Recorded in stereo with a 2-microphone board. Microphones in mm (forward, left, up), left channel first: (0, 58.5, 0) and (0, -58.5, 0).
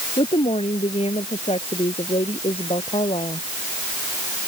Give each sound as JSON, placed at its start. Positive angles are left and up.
{"t": 0.2, "sound": "a woman speaking", "side_deg": 60}